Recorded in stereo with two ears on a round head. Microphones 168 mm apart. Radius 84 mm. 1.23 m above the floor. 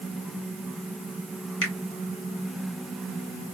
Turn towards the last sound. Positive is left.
turn(degrees=70)  # may be behind; listen again after turning